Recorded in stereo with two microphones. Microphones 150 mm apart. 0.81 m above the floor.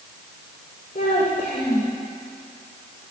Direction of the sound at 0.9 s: 65° left (ahead or behind).